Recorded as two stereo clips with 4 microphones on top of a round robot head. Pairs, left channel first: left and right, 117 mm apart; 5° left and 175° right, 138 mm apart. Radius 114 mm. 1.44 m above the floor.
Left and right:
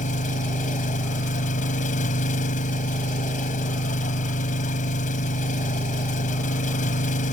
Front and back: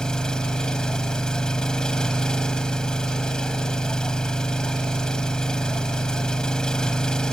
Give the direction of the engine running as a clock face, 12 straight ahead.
9 o'clock.